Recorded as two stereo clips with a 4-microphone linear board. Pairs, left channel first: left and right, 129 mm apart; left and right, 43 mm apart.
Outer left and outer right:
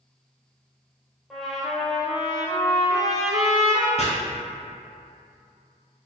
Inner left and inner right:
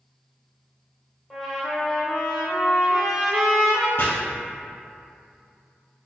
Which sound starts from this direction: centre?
A trumpet, at 1.3 s.